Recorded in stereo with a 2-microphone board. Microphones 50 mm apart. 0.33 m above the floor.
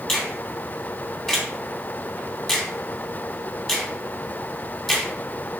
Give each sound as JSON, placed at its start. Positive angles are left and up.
{"t": 0.1, "sound": "a finger snap", "side_deg": 5, "distance_m": 3.0}